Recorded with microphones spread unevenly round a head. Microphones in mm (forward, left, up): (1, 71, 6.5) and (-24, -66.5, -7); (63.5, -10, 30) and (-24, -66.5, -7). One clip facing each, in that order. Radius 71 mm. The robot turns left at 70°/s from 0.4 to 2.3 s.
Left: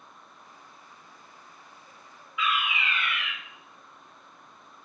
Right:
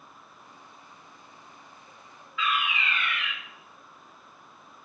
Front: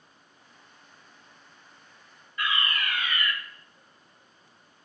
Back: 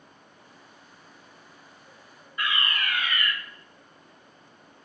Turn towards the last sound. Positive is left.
turn(degrees=155)